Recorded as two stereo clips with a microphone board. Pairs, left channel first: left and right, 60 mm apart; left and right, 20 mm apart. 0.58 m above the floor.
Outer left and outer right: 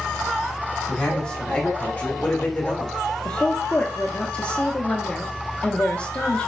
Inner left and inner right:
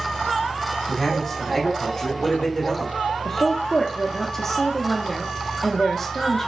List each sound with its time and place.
0.9 s a man speaking: 10° left (ahead or behind), 1.2 m; by 2.9 s 25° left (ahead or behind), 1.1 m
3.2 s a woman speaking: 20° left (ahead or behind), 0.6 m